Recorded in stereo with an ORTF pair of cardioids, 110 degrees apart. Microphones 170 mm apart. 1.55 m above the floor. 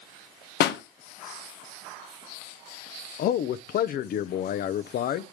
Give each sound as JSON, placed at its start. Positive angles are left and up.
{"t": 0.6, "sound": "a pop", "azimuth_deg": 70, "distance_m": 1.0}
{"t": 3.2, "sound": "a man speaking", "azimuth_deg": 60, "distance_m": 0.8}